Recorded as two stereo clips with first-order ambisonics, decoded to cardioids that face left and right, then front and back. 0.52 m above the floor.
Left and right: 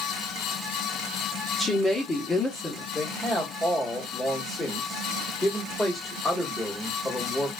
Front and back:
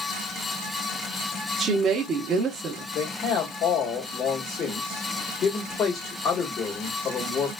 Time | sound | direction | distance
1.6 | a woman speaking | 160° left | 0.7 m
2.9 | a man speaking | 5° left | 1.3 m